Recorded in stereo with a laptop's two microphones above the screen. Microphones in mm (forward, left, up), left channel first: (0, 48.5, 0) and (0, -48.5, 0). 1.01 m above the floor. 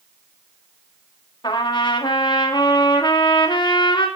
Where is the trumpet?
50° left (ahead or behind), 1.9 m.